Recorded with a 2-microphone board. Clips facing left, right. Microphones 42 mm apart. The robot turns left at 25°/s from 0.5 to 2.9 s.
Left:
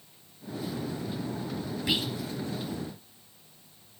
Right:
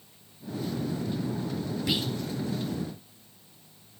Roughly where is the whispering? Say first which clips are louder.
Left 1 dB; centre.